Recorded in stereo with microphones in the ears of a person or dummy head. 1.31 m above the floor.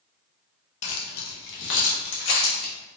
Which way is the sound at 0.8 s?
50° left (ahead or behind).